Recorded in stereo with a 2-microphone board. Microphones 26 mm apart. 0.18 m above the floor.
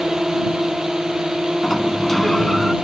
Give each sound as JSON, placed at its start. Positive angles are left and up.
{"t": 0.0, "sound": "a drone", "side_deg": -25}
{"t": 1.6, "sound": "a sliding door", "side_deg": 15}